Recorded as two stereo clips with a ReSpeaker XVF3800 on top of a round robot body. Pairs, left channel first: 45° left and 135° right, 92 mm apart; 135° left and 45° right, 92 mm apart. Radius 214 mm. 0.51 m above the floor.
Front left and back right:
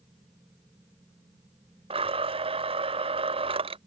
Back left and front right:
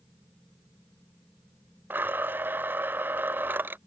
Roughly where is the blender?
Behind right.